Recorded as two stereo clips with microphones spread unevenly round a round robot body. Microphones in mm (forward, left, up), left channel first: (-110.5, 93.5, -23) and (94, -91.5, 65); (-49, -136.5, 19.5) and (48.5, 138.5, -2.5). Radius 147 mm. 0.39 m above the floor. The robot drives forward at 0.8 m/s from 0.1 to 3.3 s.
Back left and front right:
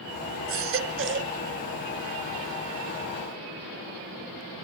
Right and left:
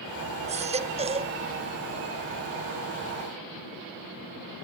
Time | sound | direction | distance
0.5 | a baby crying | 5° left | 1.4 m